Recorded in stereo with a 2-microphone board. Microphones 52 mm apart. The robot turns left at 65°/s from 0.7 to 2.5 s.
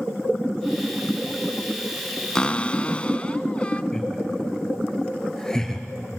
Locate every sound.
2.4 s a cupboard door: 15° left (ahead or behind), 0.8 m; by 3.8 s 25° left (ahead or behind), 0.8 m
3.9 s laughter: 10° left (ahead or behind), 4.5 m